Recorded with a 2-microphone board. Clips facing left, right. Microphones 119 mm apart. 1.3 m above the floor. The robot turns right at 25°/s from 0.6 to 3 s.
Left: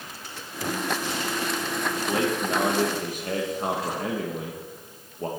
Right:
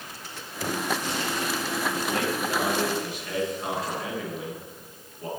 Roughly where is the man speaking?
Left.